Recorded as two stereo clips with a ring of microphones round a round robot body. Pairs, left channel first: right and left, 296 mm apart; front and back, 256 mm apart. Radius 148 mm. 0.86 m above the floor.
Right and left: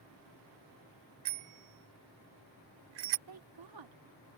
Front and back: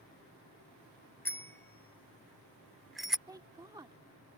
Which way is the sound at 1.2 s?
80° left.